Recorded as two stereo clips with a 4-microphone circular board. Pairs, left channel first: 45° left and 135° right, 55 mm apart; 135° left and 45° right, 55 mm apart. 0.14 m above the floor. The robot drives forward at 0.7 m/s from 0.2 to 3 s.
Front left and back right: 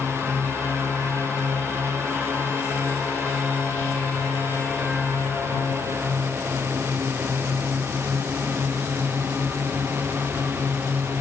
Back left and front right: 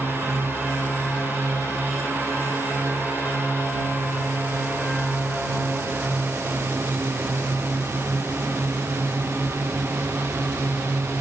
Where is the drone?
90° right; by 11.2 s 85° right.